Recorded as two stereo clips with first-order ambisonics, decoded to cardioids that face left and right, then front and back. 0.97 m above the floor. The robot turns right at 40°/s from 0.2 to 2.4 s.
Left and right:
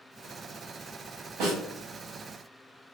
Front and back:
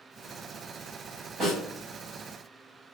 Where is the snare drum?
105° right, 1.6 m; by 1.6 s 100° right, 1.6 m.